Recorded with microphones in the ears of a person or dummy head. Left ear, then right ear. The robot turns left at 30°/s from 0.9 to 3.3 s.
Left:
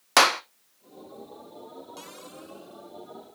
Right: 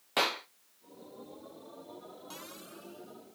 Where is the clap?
50° left (ahead or behind), 0.7 m.